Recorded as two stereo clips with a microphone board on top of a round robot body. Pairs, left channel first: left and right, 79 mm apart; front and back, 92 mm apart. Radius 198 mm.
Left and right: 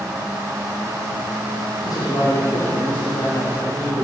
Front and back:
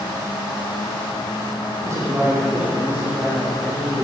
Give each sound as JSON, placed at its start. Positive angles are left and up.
{"t": 1.8, "sound": "a man speaking", "azimuth_deg": 125, "distance_m": 2.5}